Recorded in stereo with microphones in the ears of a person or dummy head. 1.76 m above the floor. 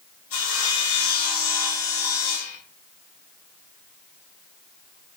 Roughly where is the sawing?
Left.